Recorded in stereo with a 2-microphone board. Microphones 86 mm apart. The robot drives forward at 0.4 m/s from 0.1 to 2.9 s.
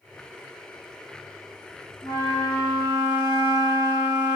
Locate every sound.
2.0 s a flute: 55° left (ahead or behind), 1.0 m; by 4.4 s 70° left (ahead or behind), 0.9 m